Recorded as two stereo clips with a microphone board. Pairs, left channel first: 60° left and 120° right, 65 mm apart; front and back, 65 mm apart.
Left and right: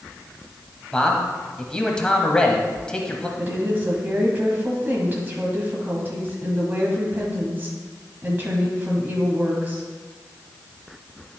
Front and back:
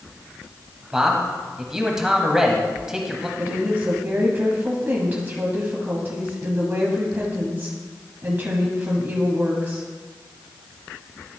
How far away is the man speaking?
About 0.9 m.